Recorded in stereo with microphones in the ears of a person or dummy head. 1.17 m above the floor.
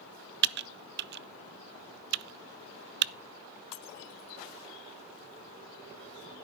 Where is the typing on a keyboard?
50° right (ahead or behind), 0.6 m.